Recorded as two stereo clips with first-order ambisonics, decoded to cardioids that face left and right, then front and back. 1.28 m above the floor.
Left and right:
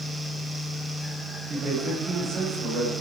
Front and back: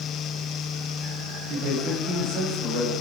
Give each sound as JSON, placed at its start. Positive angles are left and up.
{"t": 1.5, "sound": "a man speaking", "azimuth_deg": -145, "distance_m": 6.5}